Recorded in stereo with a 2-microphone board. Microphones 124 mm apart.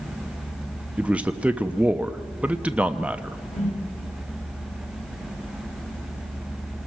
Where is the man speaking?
10° right (ahead or behind), 0.9 m.